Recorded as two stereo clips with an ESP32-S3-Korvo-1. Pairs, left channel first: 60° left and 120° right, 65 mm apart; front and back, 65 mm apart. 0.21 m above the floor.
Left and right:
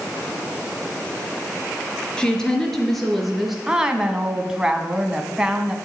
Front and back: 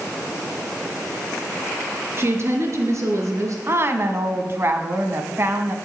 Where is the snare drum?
I don't hear a snare drum.